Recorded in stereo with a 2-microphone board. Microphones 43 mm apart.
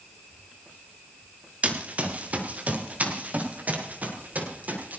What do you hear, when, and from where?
1.6 s running footsteps: 30° right (ahead or behind), 3.5 m; by 5.0 s 40° right (ahead or behind), 6 m